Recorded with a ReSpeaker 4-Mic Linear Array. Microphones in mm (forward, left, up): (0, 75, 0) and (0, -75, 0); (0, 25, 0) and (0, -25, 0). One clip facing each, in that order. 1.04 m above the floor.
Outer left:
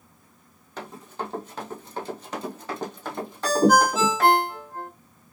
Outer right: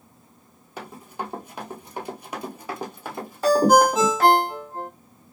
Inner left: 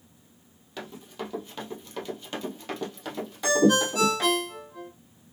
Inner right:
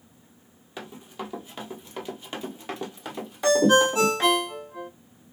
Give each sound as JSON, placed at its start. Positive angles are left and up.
{"t": 0.8, "sound": "running footsteps", "side_deg": -10, "distance_m": 1.2}
{"t": 3.4, "sound": "a ringtone", "side_deg": -30, "distance_m": 1.1}